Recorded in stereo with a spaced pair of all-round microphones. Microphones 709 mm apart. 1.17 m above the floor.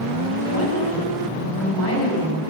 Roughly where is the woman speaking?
Left.